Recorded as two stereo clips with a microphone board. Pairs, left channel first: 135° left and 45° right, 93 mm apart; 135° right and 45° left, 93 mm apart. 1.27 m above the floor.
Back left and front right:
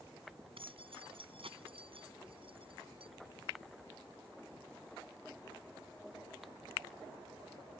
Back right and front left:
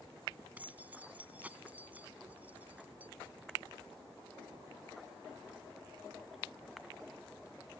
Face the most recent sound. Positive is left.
turn(degrees=-30)